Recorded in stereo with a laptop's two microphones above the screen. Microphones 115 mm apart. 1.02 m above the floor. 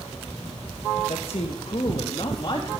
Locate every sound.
1.1 s a man speaking: 55° left (ahead or behind), 1.1 m; by 2.8 s 35° left (ahead or behind), 1.9 m